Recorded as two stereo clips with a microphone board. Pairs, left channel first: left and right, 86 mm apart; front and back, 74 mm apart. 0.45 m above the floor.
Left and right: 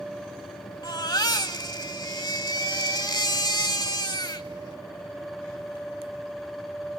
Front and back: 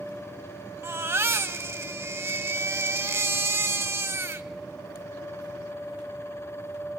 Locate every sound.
0.8 s a baby crying: 125° left, 1.2 m